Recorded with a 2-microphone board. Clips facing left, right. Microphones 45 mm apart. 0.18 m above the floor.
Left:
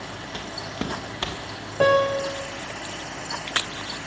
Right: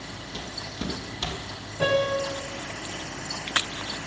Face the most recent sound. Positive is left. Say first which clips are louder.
# left 5 dB
turn(degrees=50)  # may be behind; listen again after turning